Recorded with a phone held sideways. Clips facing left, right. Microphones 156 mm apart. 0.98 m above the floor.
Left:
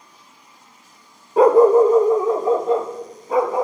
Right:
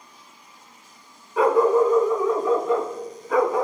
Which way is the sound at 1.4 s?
40° left (ahead or behind).